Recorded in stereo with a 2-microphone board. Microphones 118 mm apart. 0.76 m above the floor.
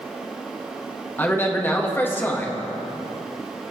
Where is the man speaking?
20° left (ahead or behind), 1.0 m.